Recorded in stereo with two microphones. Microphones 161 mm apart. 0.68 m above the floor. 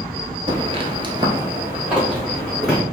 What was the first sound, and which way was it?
Footsteps, 30° right (ahead or behind).